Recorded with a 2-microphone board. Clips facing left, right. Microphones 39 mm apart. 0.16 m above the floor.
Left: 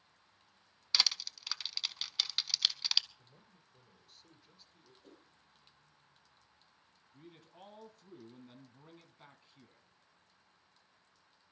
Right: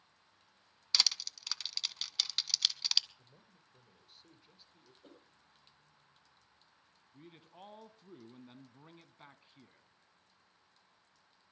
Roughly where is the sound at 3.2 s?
Centre.